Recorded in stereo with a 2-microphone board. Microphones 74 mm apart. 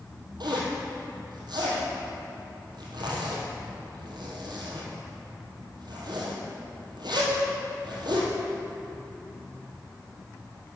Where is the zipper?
85° right, 2.5 m.